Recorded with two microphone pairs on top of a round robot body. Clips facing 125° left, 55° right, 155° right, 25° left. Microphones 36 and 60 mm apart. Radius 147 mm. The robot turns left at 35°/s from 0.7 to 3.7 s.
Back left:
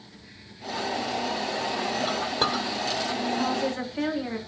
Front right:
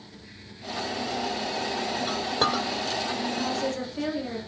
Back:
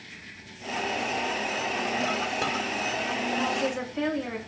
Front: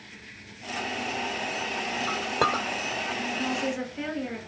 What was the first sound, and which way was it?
A clink, 45° left.